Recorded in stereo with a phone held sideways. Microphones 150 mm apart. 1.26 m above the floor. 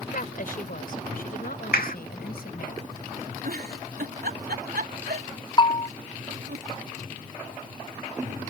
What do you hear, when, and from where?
0.1 s a woman speaking: 65° left (ahead or behind); by 2.7 s 80° left
1.7 s a clap: 80° left
3.4 s a giggle: 85° right
5.6 s a bell: 30° left (ahead or behind)